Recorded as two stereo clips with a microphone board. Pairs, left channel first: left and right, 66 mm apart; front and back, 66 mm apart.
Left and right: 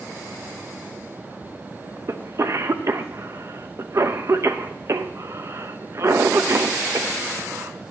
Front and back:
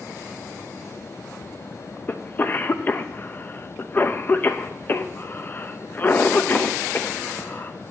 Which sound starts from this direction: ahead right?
A cough, at 2.1 s.